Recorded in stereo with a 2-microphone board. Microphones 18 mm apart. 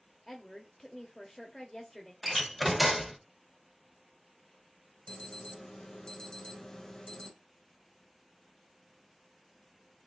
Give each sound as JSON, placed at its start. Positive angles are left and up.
{"t": 0.3, "sound": "a woman speaking", "side_deg": 20, "distance_m": 0.9}
{"t": 2.2, "sound": "a door slam", "side_deg": 0, "distance_m": 0.6}
{"t": 5.1, "sound": "an alarm", "side_deg": 40, "distance_m": 1.4}